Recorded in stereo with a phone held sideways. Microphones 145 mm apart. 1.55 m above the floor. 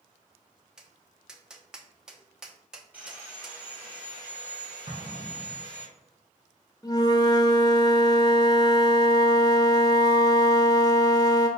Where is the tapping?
5° right (ahead or behind), 0.6 m.